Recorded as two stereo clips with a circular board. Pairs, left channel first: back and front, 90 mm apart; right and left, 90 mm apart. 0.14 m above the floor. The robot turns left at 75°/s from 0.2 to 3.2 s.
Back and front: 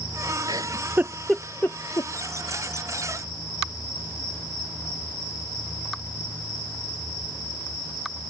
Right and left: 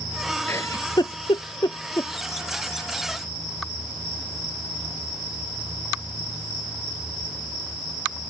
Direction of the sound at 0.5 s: 25° right.